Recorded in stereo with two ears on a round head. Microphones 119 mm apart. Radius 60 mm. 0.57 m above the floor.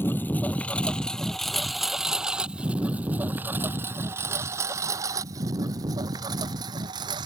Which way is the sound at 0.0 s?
15° left (ahead or behind).